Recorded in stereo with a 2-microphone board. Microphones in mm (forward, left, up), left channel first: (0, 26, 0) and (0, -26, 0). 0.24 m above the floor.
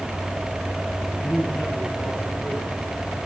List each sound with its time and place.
1.2 s a man speaking: 30° left (ahead or behind), 5.5 m; by 3.2 s 55° left (ahead or behind), 5 m